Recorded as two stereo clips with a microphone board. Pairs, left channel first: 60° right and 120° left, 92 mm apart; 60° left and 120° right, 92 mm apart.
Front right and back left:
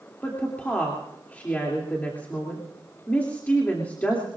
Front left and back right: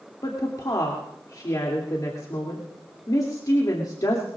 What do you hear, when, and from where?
0.2 s a woman speaking: 15° left, 2.5 m